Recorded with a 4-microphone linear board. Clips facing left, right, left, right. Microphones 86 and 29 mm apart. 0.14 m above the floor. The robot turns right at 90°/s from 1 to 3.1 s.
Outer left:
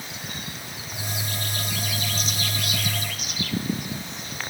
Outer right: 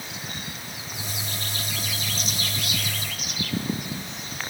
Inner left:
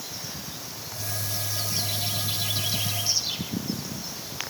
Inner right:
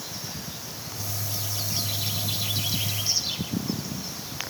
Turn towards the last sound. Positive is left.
No sound to turn to.